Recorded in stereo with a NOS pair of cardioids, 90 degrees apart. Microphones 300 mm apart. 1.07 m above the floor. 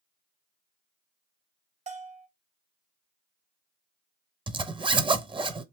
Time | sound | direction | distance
1.9 | a bell | 25° right | 0.6 m
4.5 | a zipper | 15° right | 0.6 m